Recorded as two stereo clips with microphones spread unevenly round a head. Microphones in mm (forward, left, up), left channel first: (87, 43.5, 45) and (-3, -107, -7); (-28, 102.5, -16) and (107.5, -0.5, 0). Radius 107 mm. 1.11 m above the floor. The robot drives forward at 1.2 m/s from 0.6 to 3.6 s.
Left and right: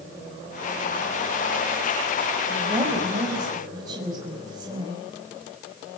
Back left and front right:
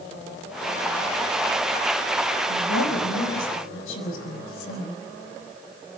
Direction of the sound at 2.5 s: 160° left.